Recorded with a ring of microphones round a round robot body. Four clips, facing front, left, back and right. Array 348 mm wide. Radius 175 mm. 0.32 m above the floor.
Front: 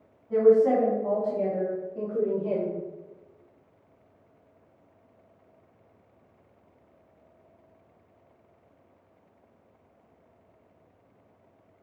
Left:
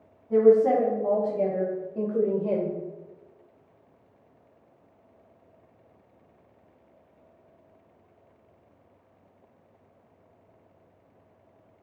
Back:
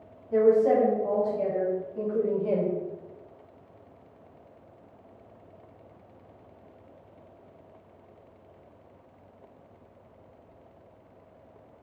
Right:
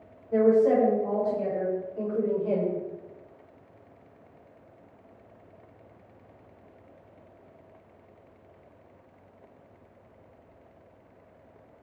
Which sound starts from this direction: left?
A woman speaking, at 0.3 s.